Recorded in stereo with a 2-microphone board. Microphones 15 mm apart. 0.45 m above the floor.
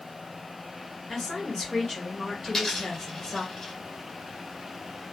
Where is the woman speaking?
35° left (ahead or behind), 1.9 m.